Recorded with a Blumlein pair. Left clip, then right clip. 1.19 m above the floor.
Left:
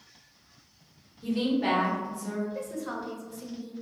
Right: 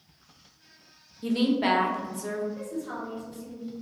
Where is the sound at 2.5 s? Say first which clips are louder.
Even; 50° left, 0.9 m.